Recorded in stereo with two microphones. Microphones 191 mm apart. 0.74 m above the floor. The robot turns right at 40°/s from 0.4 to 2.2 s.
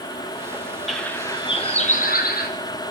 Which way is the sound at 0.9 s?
Straight ahead.